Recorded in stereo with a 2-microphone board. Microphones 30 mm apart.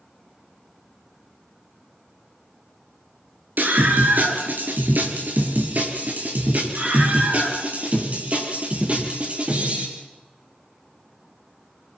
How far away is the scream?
About 5 m.